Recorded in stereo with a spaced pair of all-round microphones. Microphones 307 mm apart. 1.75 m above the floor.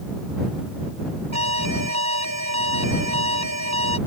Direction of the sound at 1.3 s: 60° right (ahead or behind).